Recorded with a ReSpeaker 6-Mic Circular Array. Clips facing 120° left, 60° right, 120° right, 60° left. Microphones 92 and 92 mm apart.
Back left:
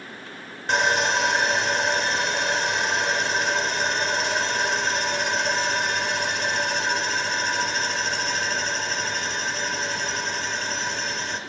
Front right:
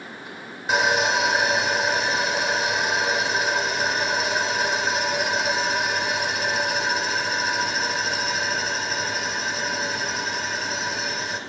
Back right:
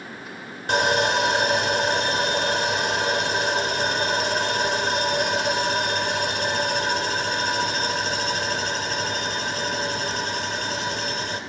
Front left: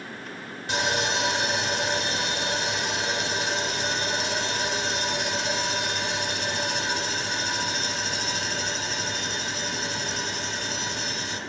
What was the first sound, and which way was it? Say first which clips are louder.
Sawing: front right 1 dB, back right 6 dB; 145° right.